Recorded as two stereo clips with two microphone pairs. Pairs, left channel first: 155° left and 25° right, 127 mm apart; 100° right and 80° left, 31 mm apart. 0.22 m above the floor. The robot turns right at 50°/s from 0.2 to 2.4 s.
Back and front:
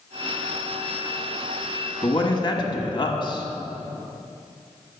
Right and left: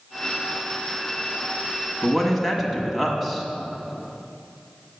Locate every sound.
2.0 s a man speaking: 145° left, 1.3 m; by 3.5 s 165° left, 1.3 m